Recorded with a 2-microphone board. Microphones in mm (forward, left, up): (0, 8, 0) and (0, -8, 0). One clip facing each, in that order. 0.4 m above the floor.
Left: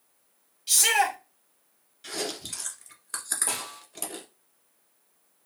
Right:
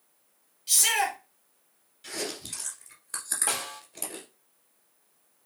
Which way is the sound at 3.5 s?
35° right (ahead or behind).